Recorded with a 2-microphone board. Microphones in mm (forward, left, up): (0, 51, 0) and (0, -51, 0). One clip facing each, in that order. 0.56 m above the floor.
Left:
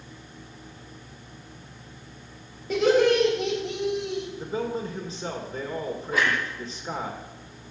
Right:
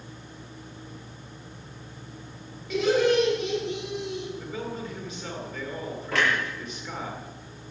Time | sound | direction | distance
2.7 | laughter | 40° left (ahead or behind) | 3 m
4.3 | a man speaking | 30° left (ahead or behind) | 1.8 m
6.1 | a clunk | 85° right | 7.5 m